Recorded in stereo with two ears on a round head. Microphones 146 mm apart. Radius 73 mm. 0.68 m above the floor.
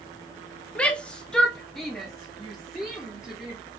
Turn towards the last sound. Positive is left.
turn(degrees=0)  # may be behind; listen again after turning